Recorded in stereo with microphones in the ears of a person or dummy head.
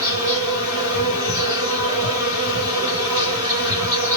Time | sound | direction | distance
0.0 | an insect | 15° right (ahead or behind) | 1.7 m